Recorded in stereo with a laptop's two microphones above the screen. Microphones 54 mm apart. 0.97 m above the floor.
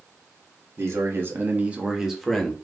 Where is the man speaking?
55° right (ahead or behind), 1.8 m; by 2.5 s 10° left (ahead or behind), 1.5 m.